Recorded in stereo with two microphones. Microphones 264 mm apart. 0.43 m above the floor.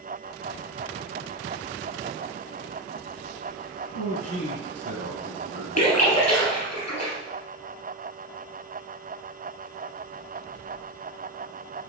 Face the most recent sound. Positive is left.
turn(degrees=85)